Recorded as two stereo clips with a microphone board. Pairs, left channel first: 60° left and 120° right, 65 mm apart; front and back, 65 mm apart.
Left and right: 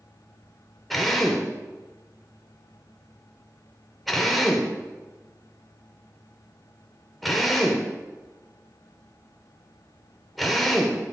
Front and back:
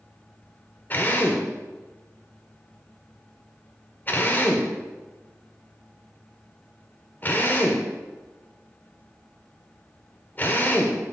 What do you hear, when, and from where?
0.9 s a drill: 30° right, 1.4 m